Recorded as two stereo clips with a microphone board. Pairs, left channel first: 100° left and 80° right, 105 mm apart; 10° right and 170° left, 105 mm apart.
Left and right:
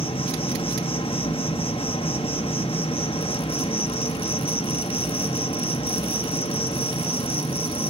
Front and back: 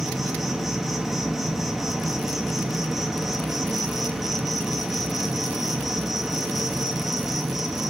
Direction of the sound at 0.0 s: 80° left.